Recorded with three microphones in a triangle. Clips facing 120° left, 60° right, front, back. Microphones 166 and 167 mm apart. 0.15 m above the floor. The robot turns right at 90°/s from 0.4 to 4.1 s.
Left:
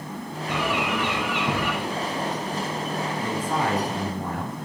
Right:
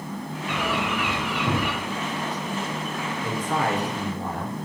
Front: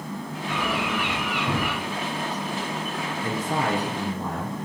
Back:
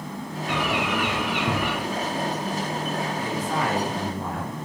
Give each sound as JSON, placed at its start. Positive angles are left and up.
{"t": 0.5, "sound": "a bird", "azimuth_deg": 170, "distance_m": 4.0}
{"t": 3.2, "sound": "a man speaking", "azimuth_deg": 25, "distance_m": 2.5}